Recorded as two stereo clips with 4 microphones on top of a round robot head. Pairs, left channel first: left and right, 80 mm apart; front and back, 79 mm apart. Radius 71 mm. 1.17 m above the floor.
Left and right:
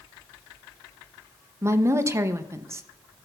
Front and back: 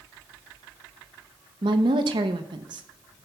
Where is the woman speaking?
150° right, 0.6 m.